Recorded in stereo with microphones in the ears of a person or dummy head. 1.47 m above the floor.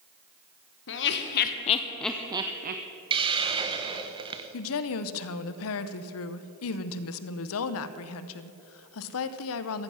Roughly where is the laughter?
Left.